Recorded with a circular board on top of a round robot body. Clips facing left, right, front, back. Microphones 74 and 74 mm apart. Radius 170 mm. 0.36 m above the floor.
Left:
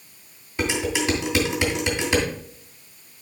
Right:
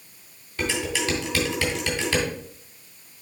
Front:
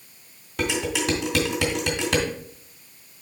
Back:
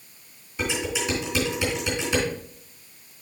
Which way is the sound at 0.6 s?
20° left.